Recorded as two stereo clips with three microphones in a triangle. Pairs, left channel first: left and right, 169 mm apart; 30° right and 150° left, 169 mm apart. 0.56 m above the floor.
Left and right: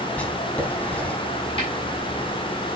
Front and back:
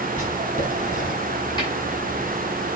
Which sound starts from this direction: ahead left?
A snare drum, at 1.6 s.